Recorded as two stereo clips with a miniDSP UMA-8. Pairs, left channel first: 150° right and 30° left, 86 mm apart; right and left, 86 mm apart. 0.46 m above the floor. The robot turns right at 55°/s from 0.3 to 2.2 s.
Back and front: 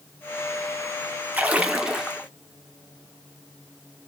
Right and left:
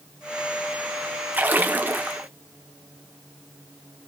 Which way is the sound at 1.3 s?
65° left.